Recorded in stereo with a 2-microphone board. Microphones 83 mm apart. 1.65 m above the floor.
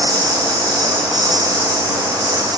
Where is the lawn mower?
45° right (ahead or behind).